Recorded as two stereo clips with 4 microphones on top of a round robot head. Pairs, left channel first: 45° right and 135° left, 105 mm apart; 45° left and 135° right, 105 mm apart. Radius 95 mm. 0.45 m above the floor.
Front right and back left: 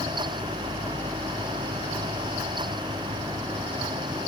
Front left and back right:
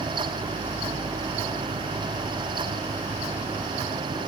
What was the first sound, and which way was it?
Only background noise.